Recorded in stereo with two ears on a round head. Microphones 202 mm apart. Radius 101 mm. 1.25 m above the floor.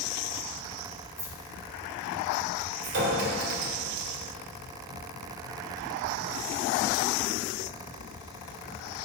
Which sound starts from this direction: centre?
Keys jangling, at 1.2 s.